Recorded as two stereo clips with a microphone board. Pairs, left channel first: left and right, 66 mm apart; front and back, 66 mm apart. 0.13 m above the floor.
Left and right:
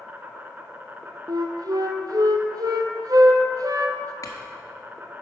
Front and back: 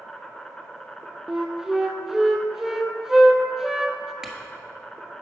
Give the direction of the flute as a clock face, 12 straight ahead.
3 o'clock.